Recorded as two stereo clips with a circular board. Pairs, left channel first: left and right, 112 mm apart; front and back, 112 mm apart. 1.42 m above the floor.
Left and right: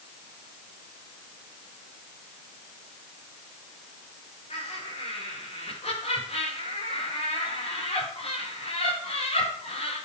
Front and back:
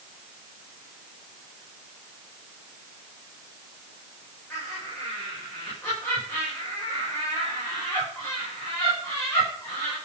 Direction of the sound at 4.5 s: 65° left.